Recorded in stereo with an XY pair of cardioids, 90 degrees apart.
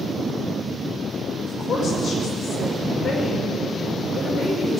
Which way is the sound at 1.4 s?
40° left.